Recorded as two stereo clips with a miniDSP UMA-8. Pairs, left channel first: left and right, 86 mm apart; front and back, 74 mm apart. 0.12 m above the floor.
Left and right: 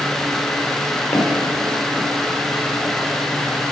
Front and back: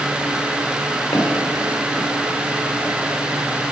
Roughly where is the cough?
I don't hear a cough.